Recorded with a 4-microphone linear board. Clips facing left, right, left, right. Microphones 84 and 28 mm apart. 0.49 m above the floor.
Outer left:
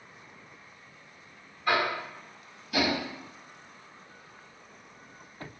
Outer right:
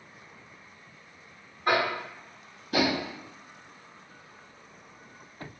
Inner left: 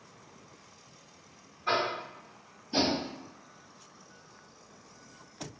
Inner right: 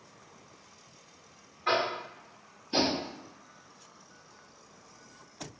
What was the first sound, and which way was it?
Tapping, 45° right (ahead or behind).